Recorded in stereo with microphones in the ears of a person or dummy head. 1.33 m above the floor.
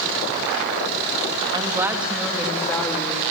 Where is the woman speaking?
25° right (ahead or behind), 2 m; by 3.2 s 25° left (ahead or behind), 2.5 m.